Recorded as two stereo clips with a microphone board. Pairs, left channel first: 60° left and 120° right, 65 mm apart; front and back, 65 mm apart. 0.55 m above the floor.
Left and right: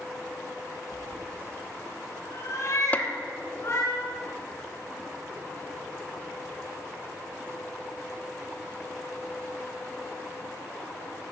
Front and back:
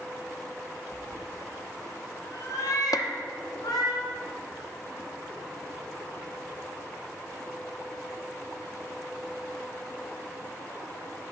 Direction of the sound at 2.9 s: 5° right.